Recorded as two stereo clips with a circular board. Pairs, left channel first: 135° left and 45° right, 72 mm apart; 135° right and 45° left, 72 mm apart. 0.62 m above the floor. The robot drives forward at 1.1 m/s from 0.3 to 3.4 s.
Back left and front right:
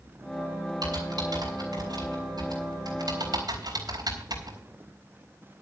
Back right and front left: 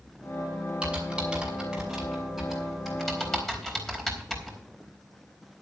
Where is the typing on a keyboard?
30° right, 6 m; by 4.6 s 50° right, 4 m.